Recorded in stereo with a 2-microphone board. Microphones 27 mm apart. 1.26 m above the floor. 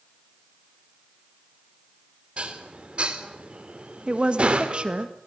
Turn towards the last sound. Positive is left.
turn(degrees=-35)  # may be behind; listen again after turning